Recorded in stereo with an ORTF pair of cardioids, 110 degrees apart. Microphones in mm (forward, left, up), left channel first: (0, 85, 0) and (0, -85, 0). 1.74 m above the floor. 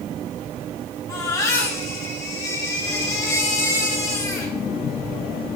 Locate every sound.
1.1 s a baby crying: 20° left, 3.5 m